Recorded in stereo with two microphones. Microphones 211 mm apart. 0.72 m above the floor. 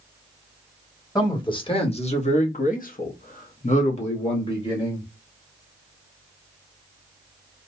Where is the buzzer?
I don't hear a buzzer.